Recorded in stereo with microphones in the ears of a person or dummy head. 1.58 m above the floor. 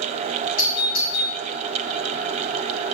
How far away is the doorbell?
About 2 m.